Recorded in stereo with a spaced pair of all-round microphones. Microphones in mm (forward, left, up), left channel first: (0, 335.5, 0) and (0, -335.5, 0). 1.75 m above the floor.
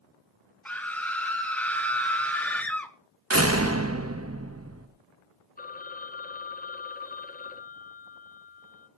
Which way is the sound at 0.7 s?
Centre (ahead or behind).